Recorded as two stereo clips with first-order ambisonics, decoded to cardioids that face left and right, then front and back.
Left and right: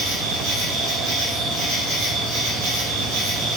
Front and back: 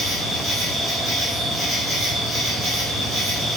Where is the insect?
90° right, 4.5 m.